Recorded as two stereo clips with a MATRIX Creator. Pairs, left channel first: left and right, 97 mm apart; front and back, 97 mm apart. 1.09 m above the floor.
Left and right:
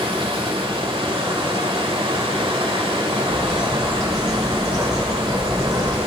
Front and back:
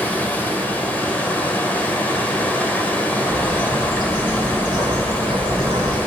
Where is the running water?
75° right, 1.5 m.